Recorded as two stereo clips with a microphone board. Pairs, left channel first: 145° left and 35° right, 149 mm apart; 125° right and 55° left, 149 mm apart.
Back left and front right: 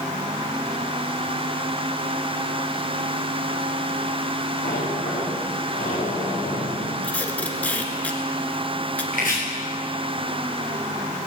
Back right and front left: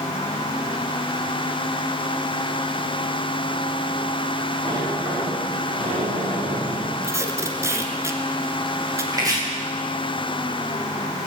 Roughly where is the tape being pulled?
Left.